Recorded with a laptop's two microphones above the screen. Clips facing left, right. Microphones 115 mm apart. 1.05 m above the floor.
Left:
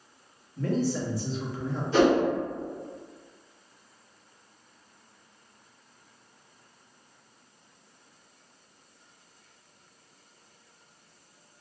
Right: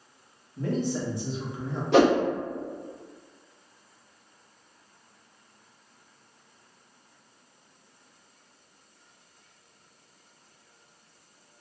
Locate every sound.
0.6 s a man speaking: 20° right (ahead or behind), 1.0 m
1.9 s a whoosh: 75° right (ahead or behind), 0.7 m